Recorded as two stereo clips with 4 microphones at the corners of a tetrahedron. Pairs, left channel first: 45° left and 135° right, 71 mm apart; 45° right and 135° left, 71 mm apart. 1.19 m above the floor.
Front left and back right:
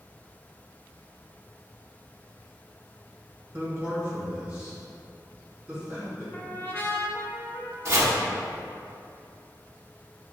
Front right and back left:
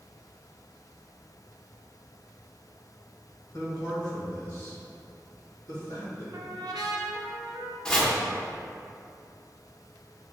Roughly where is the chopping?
Behind right.